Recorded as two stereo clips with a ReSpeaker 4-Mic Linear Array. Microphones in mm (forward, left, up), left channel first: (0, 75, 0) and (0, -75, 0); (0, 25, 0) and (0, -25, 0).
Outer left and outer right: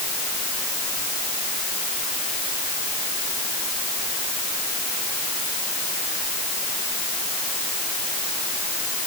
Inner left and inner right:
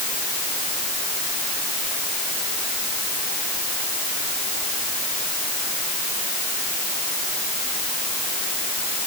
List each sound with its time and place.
Only background noise.